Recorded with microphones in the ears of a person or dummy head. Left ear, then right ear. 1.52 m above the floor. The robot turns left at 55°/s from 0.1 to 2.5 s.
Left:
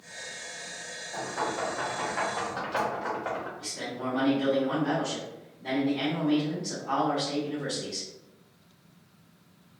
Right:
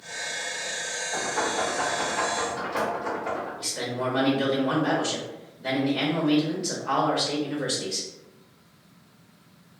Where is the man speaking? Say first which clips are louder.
Right 6 dB; 35° right (ahead or behind), 0.8 m.